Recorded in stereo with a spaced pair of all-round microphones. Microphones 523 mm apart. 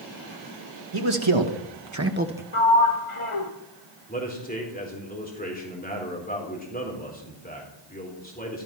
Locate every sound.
0.9 s a man speaking: 70° right (ahead or behind), 2 m; by 2.4 s centre (ahead or behind), 1.2 m
2.5 s a sliding door: 70° left (ahead or behind), 1.8 m
4.1 s a man speaking: 15° left (ahead or behind), 3.5 m